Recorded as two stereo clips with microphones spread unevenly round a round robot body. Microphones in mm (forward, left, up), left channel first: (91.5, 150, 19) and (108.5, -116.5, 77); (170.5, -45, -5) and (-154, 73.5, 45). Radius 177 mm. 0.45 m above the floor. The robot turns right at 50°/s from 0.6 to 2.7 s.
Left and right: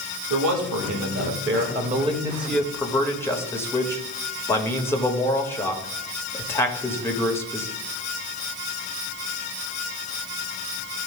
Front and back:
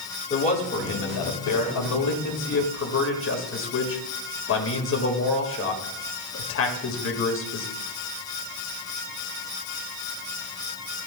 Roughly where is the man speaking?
Right.